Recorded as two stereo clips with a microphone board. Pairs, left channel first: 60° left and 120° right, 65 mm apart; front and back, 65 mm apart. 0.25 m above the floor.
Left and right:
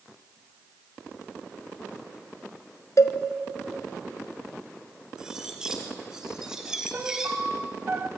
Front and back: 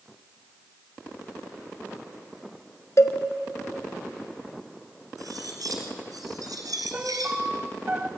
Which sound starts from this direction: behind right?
A piano, at 6.9 s.